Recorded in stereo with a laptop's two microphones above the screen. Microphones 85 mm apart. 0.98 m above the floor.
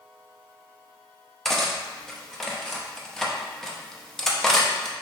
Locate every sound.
1.4 s cutlery clinking: 5° left (ahead or behind), 0.6 m